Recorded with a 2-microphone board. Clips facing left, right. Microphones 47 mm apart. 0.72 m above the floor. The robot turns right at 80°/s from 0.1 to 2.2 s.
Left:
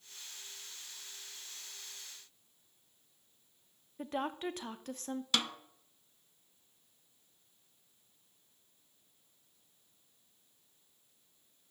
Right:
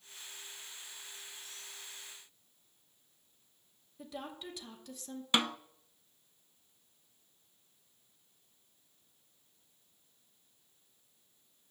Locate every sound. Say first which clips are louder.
4.0 s a woman speaking: left 8 dB; 50° left (ahead or behind), 0.9 m
5.3 s a snare drum: right 4 dB; 25° right (ahead or behind), 0.6 m